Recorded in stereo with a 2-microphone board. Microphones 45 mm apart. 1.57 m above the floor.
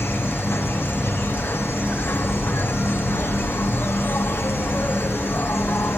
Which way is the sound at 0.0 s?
55° left (ahead or behind).